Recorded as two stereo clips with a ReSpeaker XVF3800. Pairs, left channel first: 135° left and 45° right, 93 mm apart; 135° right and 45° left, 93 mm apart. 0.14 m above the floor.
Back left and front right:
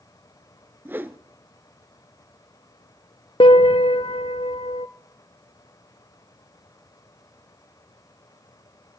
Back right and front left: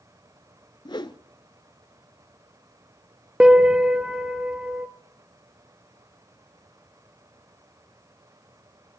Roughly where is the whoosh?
Right.